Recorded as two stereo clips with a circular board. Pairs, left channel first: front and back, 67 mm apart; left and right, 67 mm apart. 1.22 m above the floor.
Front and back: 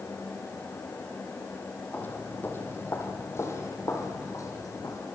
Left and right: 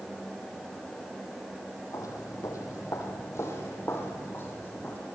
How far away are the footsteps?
About 3 m.